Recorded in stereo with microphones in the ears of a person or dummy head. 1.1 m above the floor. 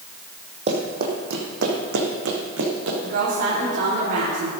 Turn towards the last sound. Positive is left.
turn(degrees=-65)  # may be behind; listen again after turning